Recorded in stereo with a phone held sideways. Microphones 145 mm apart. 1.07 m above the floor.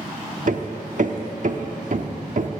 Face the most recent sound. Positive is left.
turn(degrees=-65)  # may be behind; listen again after turning